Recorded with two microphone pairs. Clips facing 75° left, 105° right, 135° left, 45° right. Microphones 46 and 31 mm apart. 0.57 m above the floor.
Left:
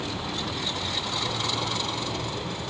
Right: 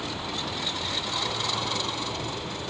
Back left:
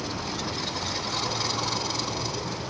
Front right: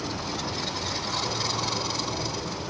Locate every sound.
0.0 s an insect: 75° left, 1.3 m